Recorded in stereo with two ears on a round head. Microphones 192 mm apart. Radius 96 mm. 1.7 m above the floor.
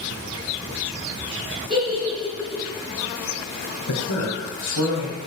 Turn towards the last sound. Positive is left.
turn(degrees=85)